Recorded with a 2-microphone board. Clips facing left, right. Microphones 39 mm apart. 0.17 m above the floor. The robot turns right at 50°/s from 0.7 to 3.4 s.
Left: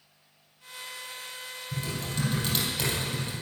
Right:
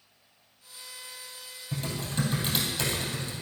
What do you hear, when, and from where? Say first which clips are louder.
1.7 s typing on a keyboard: right 1 dB; 50° right (ahead or behind), 3.5 m; by 3.3 s 30° left (ahead or behind), 3.5 m